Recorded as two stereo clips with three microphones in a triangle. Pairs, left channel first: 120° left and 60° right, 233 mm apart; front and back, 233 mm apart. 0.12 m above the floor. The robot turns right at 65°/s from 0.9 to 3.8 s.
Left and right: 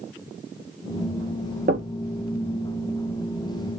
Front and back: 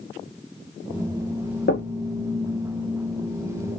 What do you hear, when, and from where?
1.7 s knocking: 25° right, 1.9 m; by 2.0 s 5° right, 1.9 m